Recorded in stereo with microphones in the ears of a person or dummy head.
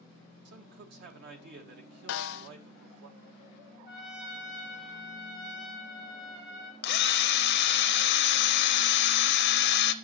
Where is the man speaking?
65° right (ahead or behind), 1.9 m.